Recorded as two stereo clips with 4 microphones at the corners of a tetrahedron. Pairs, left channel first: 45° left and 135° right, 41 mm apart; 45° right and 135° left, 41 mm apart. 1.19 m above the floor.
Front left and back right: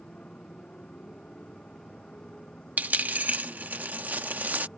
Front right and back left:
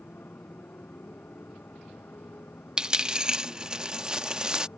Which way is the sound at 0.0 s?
15° right.